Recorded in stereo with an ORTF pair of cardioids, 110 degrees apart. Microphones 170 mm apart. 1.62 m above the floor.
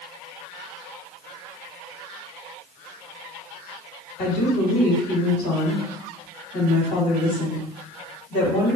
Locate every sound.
4.2 s a woman speaking: 70° left, 2.5 m